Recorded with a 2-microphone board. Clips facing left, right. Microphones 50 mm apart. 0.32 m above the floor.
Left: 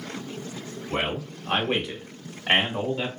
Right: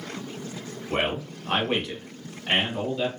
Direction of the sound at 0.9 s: 20° right (ahead or behind).